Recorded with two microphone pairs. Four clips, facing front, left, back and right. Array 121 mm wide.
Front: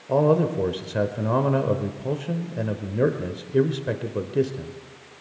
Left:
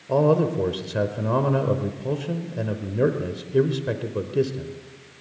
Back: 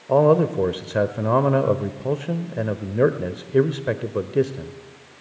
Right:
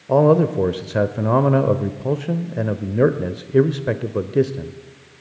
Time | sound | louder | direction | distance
0.1 | a man speaking | right 5 dB, back 3 dB | 150° right | 1.0 m